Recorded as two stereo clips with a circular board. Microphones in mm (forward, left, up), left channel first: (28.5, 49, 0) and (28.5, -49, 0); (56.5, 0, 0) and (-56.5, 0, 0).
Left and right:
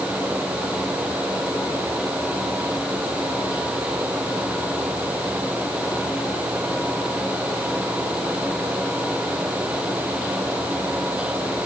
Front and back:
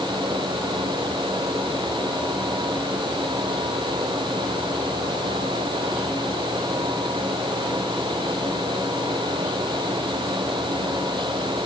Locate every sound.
Only background noise.